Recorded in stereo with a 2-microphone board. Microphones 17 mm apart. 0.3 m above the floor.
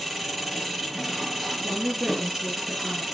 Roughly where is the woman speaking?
Right.